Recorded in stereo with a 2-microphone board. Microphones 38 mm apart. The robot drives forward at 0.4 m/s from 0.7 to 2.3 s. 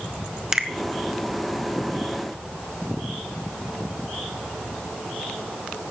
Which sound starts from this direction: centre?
A finger snap, at 0.5 s.